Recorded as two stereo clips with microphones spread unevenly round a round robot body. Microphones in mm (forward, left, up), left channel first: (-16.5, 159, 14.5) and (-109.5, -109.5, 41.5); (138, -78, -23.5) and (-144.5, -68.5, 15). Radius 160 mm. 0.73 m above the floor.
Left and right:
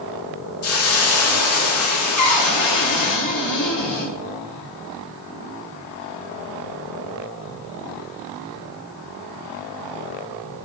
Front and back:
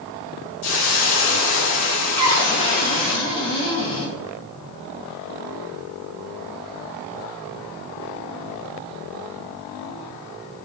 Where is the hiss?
40° left, 1.2 m.